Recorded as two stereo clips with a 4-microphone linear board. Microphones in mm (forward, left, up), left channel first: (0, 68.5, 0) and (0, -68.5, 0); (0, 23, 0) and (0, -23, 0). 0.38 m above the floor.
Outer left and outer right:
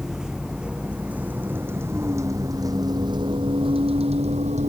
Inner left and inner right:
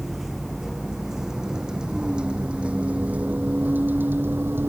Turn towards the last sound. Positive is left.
turn(degrees=-55)  # may be behind; listen again after turning